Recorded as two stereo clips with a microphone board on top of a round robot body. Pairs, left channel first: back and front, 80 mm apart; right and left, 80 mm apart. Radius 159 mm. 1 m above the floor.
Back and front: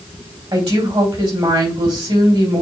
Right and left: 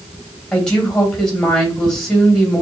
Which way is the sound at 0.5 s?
10° right.